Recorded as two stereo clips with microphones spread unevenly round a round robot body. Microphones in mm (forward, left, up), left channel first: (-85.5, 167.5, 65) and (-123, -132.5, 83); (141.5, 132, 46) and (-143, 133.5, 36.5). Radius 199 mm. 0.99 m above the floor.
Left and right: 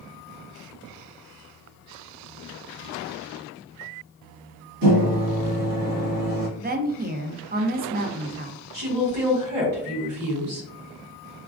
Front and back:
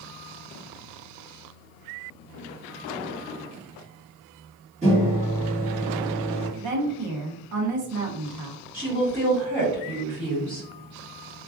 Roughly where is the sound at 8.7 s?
Right.